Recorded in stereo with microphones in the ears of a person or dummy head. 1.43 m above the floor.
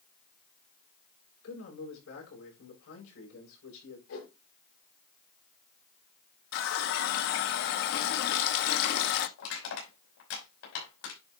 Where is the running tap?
55° left (ahead or behind), 1.0 m.